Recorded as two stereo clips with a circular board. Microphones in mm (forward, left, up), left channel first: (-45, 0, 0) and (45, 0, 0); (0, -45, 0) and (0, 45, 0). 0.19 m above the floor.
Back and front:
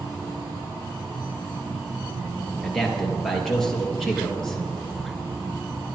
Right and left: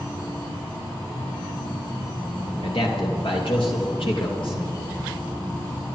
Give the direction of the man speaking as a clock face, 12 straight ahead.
3 o'clock.